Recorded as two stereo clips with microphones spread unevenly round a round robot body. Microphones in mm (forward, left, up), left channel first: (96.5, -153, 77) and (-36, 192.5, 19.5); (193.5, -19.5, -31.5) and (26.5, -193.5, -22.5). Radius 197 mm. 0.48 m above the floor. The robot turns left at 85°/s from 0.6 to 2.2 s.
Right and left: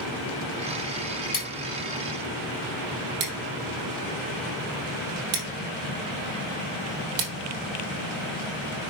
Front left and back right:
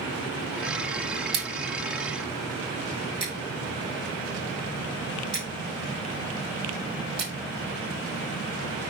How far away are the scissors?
About 3 m.